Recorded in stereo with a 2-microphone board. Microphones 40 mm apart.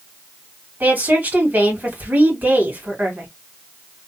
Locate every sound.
0.8 s a woman speaking: 50° right (ahead or behind), 2.5 m